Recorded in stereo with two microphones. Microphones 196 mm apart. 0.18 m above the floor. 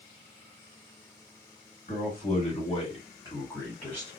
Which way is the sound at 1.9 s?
45° left (ahead or behind).